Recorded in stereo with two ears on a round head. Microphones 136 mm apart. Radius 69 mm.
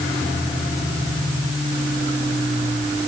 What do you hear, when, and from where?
Only background noise.